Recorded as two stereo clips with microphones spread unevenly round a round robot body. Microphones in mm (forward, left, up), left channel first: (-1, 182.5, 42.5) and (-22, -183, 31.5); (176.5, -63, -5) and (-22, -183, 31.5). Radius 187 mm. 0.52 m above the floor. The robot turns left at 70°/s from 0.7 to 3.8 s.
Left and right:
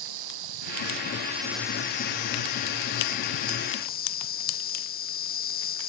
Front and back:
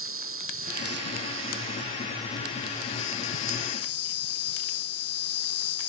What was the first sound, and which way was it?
An insect, 125° right.